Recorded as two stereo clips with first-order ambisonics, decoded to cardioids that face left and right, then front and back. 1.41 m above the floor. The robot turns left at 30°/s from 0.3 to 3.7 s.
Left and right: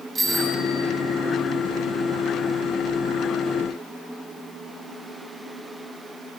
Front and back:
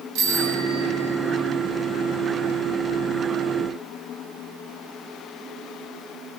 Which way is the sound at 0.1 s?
160° right.